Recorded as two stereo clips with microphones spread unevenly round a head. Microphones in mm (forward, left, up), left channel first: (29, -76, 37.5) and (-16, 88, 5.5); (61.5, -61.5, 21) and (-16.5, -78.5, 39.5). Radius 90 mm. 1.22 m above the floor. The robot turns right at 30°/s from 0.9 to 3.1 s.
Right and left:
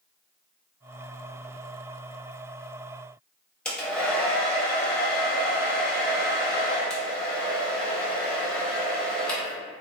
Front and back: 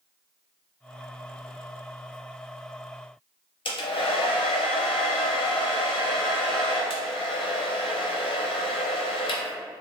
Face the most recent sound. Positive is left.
turn(degrees=10)